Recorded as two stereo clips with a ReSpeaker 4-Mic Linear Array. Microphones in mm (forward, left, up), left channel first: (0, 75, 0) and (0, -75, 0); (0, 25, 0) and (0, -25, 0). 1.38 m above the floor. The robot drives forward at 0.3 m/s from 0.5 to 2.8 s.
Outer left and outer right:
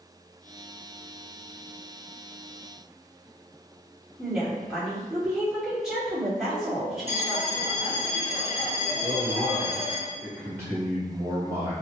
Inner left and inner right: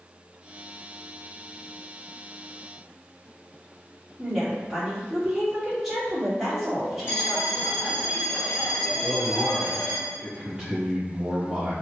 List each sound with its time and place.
4.2 s a woman speaking: 5° right (ahead or behind), 1.7 m
7.1 s a bell: 50° left (ahead or behind), 1.0 m
9.0 s a man speaking: 15° right (ahead or behind), 1.9 m